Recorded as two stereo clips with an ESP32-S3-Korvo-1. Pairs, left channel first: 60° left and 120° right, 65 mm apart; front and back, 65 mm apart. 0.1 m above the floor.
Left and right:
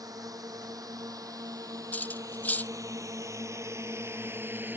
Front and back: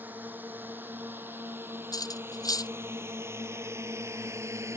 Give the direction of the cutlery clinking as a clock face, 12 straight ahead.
12 o'clock.